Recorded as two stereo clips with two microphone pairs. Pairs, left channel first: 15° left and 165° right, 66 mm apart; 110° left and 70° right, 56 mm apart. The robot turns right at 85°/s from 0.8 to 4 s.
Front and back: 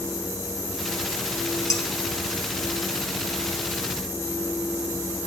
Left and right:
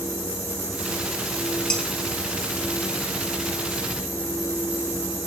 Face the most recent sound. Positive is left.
turn(degrees=-130)